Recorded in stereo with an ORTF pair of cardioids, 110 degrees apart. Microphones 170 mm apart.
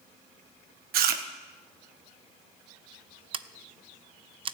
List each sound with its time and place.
0.9 s chewing: 65° right, 1.3 m
3.3 s scissors: 30° right, 0.6 m